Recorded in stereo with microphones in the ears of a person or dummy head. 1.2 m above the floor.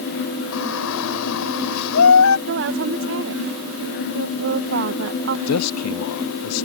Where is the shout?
75° left (ahead or behind).